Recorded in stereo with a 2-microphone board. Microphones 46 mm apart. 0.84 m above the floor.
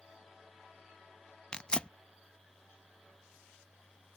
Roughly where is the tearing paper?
Left.